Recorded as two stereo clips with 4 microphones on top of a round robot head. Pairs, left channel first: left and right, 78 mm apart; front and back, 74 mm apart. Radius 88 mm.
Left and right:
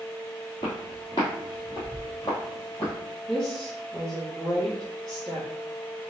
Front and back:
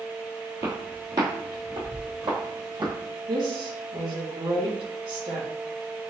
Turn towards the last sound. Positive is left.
turn(degrees=170)